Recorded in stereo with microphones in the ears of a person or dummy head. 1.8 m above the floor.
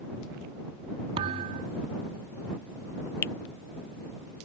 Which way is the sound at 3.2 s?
15° left (ahead or behind).